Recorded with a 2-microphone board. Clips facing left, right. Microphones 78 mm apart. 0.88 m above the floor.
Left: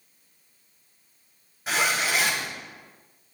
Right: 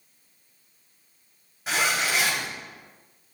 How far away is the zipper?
About 5 m.